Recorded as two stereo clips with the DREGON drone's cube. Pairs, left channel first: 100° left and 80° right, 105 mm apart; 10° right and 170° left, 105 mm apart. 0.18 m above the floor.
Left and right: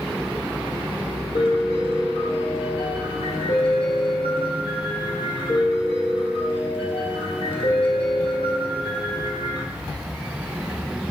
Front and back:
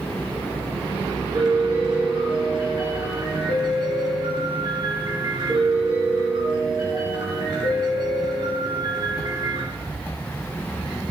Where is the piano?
130° left, 1.7 m.